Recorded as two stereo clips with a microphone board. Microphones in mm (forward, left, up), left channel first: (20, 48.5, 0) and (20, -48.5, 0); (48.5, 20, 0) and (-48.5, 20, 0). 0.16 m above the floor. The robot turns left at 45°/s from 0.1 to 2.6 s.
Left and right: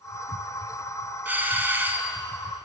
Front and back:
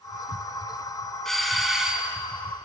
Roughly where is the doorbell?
Right.